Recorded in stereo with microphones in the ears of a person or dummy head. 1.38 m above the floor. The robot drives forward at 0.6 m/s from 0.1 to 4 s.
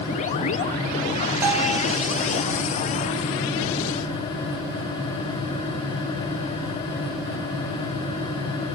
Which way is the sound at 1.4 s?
10° right (ahead or behind).